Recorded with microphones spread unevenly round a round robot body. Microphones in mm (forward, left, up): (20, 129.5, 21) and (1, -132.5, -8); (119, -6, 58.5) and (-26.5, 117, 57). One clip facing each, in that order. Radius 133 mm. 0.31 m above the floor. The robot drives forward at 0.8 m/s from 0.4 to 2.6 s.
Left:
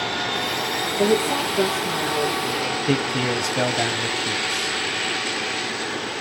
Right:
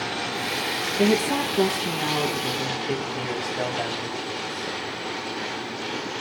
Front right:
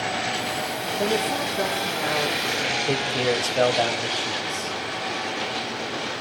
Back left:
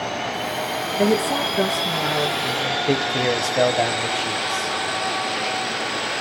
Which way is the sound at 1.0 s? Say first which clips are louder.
Left 1 dB, back left 5 dB; 155° right.